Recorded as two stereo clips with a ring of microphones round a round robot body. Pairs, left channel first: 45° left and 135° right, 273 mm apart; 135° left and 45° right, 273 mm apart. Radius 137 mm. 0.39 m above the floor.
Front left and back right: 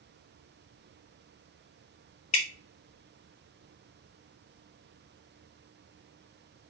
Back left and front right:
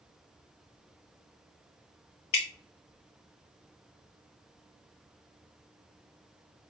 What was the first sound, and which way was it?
Dripping, 110° left.